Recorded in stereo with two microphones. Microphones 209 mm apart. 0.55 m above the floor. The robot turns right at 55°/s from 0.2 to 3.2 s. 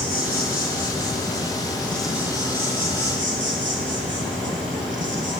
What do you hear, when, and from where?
0.0 s an insect: 80° left, 2.5 m; by 5.4 s 115° right, 2.5 m